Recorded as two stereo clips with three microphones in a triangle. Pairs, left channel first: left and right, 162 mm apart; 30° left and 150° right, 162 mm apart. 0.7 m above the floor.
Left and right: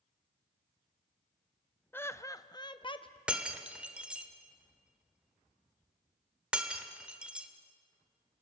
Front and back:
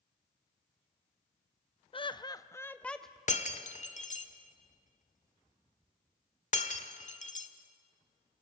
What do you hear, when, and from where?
1.9 s laughter: 25° left, 0.7 m; by 3.2 s 120° left, 0.7 m
3.3 s breaking glass: 5° right, 1.4 m